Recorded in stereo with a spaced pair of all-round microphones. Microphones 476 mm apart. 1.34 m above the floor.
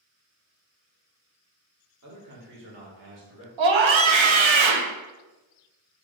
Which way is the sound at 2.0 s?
35° right (ahead or behind).